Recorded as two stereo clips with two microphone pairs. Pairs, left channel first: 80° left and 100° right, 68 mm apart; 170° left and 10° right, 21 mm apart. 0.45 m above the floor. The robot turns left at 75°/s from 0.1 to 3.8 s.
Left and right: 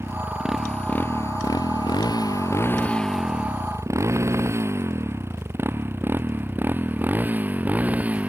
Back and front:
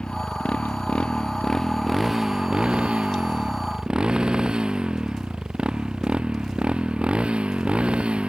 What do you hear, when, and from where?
0.0 s a motorcycle: 155° right; by 8.3 s 30° right